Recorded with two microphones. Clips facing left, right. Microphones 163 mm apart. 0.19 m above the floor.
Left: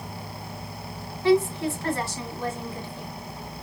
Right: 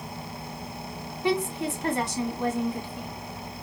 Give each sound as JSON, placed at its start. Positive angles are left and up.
{"t": 1.2, "sound": "a woman speaking", "side_deg": -20, "distance_m": 1.2}